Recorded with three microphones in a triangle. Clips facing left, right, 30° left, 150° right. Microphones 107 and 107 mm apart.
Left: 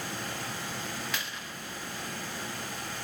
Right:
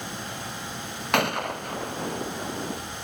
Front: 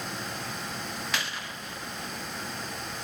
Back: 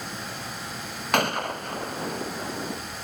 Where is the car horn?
I don't hear a car horn.